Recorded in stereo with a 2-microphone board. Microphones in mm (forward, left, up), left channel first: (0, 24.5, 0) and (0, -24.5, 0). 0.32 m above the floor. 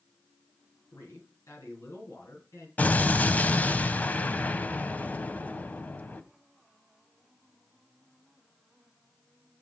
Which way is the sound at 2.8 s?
35° left (ahead or behind).